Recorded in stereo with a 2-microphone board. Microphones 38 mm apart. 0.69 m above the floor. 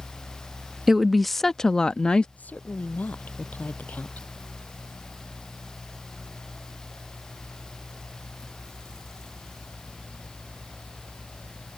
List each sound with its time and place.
0.9 s a woman speaking: 10° right (ahead or behind); by 2.3 s 25° left (ahead or behind)
2.4 s a woman speaking: 40° left (ahead or behind)